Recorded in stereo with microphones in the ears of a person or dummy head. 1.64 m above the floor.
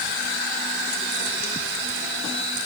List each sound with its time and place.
Only background noise.